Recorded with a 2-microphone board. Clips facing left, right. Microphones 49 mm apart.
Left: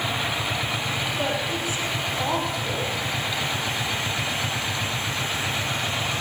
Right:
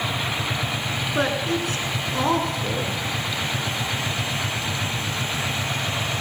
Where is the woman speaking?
50° right (ahead or behind), 8.5 m.